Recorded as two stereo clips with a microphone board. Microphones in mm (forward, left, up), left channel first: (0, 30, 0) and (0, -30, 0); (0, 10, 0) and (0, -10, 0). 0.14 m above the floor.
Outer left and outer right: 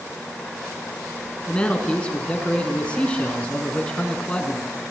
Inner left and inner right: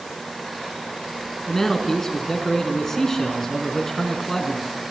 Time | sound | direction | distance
1.5 | a man speaking | 20° left (ahead or behind) | 1.6 m